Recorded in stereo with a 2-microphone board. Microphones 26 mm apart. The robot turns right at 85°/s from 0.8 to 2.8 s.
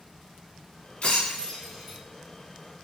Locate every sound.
1.0 s breaking glass: 60° left (ahead or behind), 1.5 m; by 2.0 s 15° right (ahead or behind), 1.5 m